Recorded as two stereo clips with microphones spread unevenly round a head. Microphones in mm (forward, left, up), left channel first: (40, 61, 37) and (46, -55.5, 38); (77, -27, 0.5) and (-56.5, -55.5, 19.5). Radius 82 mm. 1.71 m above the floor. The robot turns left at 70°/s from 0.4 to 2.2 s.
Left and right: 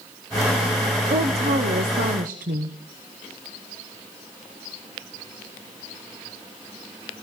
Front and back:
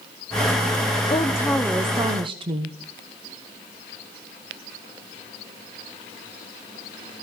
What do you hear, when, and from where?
1.1 s a woman speaking: 45° right, 0.8 m; by 2.8 s 120° right, 0.8 m